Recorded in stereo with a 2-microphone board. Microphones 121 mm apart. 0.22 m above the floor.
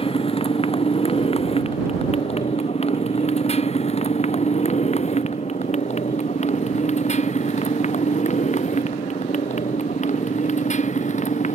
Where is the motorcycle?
50° left (ahead or behind); by 11.6 s 80° left.